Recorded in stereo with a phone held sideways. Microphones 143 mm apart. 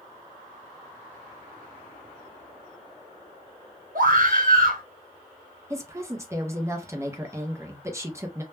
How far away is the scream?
About 1.1 m.